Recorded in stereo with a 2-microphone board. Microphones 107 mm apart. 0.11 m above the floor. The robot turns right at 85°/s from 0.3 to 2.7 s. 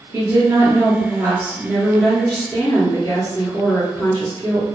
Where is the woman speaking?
145° right, 1.4 m; by 4.7 s 60° left, 1.4 m.